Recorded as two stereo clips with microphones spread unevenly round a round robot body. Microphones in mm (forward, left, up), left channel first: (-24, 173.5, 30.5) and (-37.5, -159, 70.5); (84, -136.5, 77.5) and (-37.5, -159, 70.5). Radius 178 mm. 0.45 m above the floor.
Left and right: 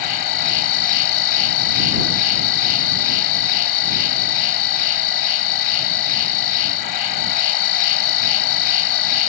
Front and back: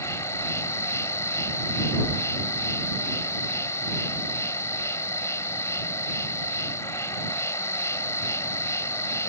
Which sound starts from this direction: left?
An insect, at 0.0 s.